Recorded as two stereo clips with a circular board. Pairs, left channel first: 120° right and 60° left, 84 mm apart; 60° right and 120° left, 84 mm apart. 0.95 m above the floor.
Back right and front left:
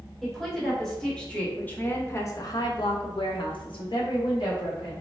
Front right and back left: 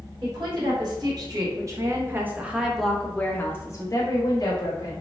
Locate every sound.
0.2 s a woman speaking: 150° left, 1.7 m; by 5.0 s 85° right, 1.4 m